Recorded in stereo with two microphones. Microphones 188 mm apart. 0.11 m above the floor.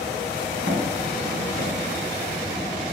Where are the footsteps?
85° right, 1.9 m; by 2.9 s 80° right, 0.6 m.